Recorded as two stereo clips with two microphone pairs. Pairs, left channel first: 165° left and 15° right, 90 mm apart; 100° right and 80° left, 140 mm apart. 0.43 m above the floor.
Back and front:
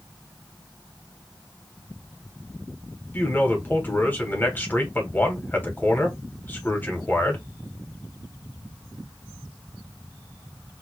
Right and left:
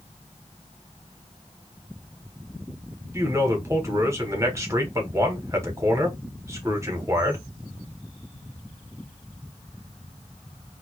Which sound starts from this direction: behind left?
A man speaking, at 3.1 s.